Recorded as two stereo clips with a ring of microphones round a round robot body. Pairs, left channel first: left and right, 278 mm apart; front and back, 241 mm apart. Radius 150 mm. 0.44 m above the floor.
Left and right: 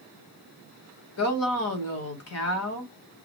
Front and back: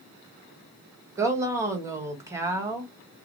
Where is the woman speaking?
105° left, 1.6 m.